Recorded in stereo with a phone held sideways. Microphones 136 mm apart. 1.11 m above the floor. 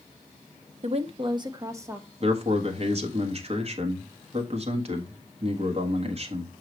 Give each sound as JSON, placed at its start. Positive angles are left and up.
{"t": 0.8, "sound": "a woman speaking", "side_deg": -55, "distance_m": 0.8}
{"t": 2.2, "sound": "a man speaking", "side_deg": -50, "distance_m": 1.4}